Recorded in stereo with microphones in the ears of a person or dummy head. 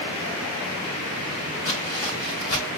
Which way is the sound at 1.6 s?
30° left (ahead or behind).